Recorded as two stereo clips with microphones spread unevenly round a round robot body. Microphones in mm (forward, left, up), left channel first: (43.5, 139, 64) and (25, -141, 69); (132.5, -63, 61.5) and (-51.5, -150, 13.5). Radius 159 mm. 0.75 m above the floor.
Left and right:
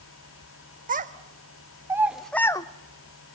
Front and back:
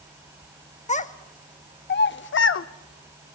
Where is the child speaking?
30° right, 1.4 m; by 2.7 s 10° left, 0.9 m.